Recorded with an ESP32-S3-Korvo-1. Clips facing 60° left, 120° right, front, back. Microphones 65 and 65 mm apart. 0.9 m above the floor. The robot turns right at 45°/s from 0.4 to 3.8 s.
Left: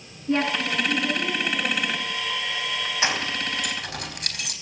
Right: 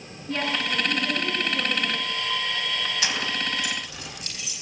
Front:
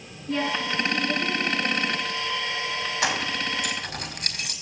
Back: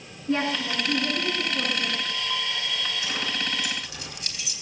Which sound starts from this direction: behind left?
A woman speaking, at 0.3 s.